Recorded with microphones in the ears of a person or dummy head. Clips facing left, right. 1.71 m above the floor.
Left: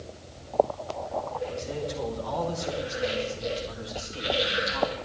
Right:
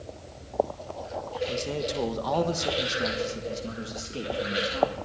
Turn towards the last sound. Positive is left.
turn(degrees=-30)  # may be behind; listen again after turning